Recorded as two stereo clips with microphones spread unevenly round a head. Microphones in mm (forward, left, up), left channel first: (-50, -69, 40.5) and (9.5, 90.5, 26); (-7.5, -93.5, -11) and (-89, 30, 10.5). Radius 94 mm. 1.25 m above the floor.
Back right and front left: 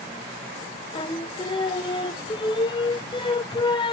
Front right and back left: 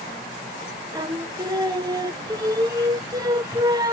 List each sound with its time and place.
0.9 s singing: 170° right, 0.7 m